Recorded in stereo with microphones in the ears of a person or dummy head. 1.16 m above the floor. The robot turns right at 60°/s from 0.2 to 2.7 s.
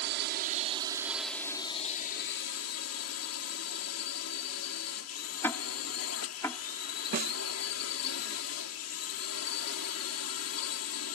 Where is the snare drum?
50° right (ahead or behind).